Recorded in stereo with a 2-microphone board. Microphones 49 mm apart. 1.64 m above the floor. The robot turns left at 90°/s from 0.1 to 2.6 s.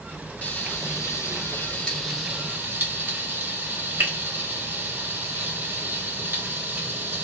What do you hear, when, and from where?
0.4 s frying: 30° left (ahead or behind), 0.9 m; by 7.2 s 45° right (ahead or behind), 0.9 m